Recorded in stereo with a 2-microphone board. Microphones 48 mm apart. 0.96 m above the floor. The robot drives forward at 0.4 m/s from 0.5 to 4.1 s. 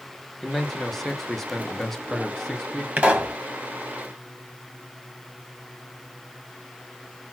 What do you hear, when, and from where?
0.4 s a man speaking: 5° left (ahead or behind), 1.0 m
3.0 s a pop: 25° right (ahead or behind), 1.3 m; by 3.4 s 20° right (ahead or behind), 1.5 m